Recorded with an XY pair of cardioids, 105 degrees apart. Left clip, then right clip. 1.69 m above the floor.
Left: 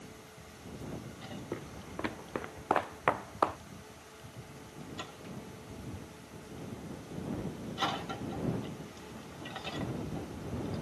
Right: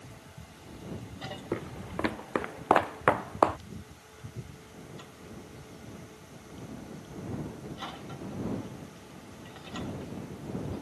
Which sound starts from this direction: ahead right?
Footsteps, at 1.5 s.